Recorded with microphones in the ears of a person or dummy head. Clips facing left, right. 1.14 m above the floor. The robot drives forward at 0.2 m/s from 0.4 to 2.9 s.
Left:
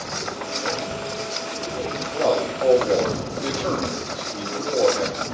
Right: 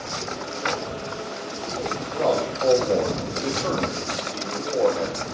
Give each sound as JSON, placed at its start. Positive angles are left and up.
{"t": 2.1, "sound": "a man speaking", "side_deg": 25, "distance_m": 0.9}